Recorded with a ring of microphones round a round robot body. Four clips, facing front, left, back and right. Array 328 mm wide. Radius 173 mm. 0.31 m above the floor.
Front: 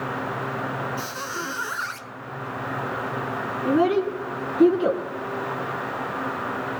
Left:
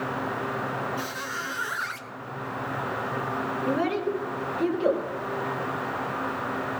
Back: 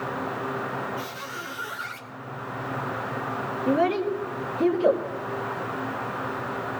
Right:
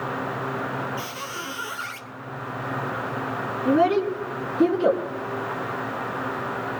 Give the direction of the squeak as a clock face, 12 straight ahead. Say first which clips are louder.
Even, front 4 dB; 1 o'clock.